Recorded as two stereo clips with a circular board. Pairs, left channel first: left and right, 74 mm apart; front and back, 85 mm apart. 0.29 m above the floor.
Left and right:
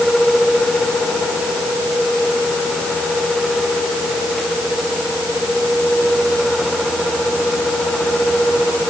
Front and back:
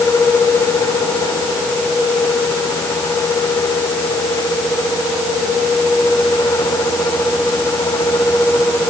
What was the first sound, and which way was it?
Only background noise.